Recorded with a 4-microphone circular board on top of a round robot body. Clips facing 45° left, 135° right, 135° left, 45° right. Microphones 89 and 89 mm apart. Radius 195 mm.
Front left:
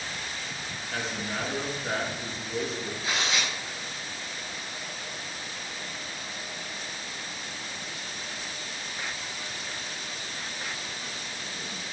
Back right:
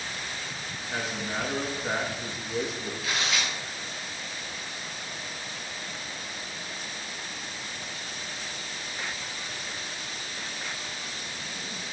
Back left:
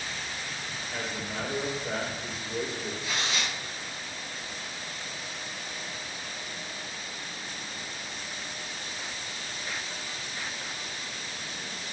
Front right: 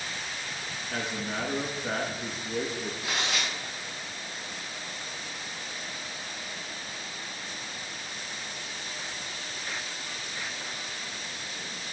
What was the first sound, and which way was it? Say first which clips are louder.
A man speaking: back right 1 dB, front right 3 dB; 55° right.